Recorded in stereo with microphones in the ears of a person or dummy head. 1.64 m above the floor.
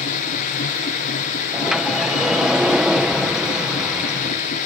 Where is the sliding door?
Centre (ahead or behind).